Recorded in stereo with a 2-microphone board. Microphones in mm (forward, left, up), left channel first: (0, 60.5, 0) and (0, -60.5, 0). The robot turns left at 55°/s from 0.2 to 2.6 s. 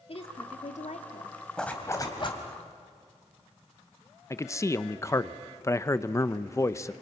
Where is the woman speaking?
125° left, 2 m; by 1.4 s 60° left, 2 m.